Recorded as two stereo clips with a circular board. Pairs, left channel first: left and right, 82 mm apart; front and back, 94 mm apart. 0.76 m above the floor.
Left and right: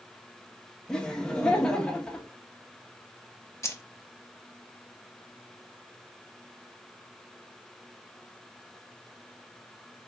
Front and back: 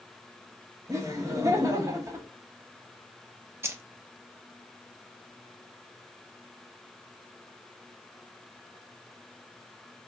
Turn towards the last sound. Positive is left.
turn(degrees=130)